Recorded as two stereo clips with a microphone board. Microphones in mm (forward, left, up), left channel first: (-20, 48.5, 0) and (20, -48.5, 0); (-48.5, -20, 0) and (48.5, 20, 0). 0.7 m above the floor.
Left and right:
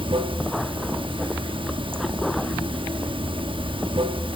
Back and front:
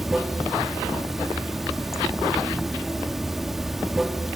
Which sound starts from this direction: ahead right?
Running water, at 0.0 s.